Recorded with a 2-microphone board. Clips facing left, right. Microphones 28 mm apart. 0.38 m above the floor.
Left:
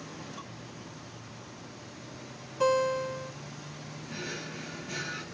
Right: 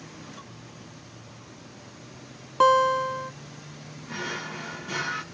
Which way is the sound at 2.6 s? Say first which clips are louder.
Right 7 dB; 80° right.